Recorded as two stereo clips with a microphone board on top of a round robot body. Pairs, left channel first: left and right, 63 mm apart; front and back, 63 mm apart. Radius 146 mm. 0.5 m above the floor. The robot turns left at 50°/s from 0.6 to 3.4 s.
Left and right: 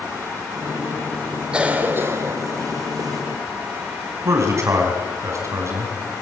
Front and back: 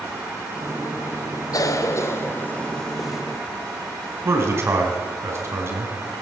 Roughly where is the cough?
Ahead.